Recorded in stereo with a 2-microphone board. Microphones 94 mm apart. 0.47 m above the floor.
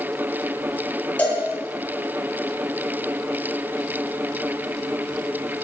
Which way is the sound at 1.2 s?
15° left (ahead or behind).